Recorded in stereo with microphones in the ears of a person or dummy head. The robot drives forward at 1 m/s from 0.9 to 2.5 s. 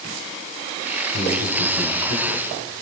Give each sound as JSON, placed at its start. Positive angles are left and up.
{"t": 1.1, "sound": "a man speaking", "side_deg": 80, "distance_m": 3.0}